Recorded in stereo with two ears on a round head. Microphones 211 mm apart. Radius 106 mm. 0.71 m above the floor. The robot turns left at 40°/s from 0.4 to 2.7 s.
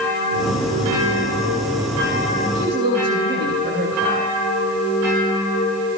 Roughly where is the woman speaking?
Right.